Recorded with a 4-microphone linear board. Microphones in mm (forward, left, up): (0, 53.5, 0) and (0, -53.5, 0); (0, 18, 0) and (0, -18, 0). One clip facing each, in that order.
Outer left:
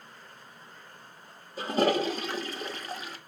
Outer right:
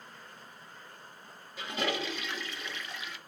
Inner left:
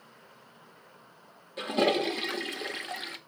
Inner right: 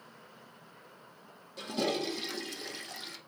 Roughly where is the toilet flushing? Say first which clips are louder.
Outer left 9 dB, inner left 6 dB; left.